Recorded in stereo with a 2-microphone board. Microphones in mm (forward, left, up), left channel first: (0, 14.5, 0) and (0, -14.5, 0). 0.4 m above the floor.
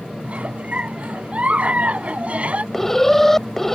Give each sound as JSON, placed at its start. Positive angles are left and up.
{"t": 0.2, "sound": "a giggle", "side_deg": -40}
{"t": 2.7, "sound": "an alarm", "side_deg": 10}